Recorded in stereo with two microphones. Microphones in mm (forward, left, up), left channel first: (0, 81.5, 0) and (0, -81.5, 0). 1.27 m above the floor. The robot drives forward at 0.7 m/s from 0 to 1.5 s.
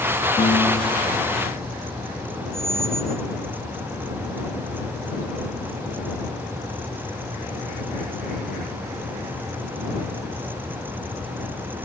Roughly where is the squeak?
Left.